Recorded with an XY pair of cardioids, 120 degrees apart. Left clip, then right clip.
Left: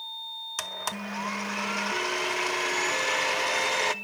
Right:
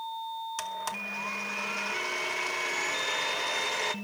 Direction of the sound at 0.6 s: 30° left.